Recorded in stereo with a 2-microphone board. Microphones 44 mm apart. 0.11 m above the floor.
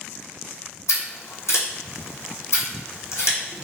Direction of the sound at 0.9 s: 75° left (ahead or behind).